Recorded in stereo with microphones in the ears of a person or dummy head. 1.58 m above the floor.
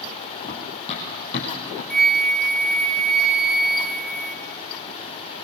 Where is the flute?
Centre (ahead or behind), 1.5 m.